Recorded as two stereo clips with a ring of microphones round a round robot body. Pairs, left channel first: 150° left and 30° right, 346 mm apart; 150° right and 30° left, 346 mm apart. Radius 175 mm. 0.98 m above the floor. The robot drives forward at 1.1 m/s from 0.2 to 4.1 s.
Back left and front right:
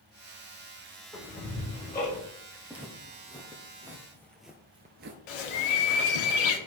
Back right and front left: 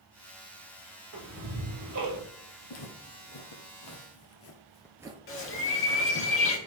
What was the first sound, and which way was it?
Ticking, 70° left.